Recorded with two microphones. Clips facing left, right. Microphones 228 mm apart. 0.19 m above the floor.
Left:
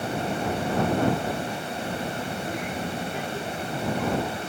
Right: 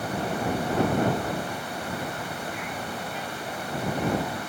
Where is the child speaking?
30° left (ahead or behind); by 4.5 s 65° left (ahead or behind).